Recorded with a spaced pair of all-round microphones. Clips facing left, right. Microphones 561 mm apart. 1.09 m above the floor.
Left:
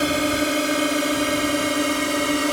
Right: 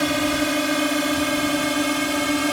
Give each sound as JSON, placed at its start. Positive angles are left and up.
{"t": 0.0, "sound": "a drone", "side_deg": -20}